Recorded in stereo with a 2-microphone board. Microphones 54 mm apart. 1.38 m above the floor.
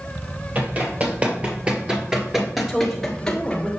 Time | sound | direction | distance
0.6 | running footsteps | 35° right (ahead or behind) | 1.9 m
2.6 | a woman speaking | 5° right (ahead or behind) | 2.0 m